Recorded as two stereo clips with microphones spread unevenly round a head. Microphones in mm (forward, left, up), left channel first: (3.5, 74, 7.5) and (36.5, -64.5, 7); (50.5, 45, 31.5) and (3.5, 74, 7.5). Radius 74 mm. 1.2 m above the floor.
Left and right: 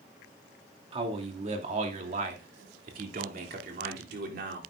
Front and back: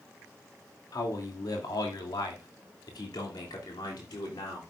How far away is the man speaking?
About 2.5 m.